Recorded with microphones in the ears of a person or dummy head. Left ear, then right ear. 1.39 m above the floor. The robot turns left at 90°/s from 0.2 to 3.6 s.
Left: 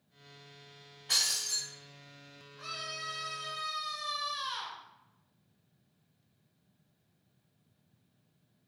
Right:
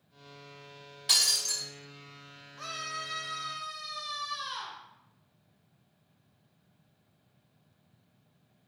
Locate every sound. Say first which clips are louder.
1.1 s breaking glass: right 4 dB; 95° right, 3 m; by 1.6 s 145° right, 3 m
2.6 s a scream: right 2 dB; 120° right, 2.0 m; by 4.8 s 150° left, 2.0 m